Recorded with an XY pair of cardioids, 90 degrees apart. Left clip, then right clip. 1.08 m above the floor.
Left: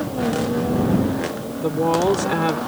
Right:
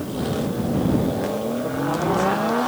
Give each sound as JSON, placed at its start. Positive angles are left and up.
{"t": 1.6, "sound": "a woman speaking", "azimuth_deg": 65}